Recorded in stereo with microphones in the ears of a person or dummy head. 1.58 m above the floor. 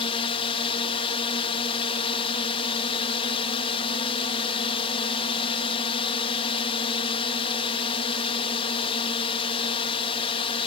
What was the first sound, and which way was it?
A drone, 30° left (ahead or behind).